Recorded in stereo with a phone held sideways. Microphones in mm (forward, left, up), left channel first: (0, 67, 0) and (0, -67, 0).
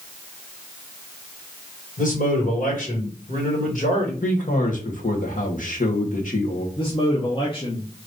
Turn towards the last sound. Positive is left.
turn(degrees=40)  # may be behind; listen again after turning